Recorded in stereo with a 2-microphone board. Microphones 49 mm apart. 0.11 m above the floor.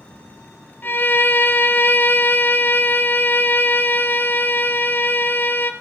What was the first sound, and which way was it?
A violin, 40° left (ahead or behind).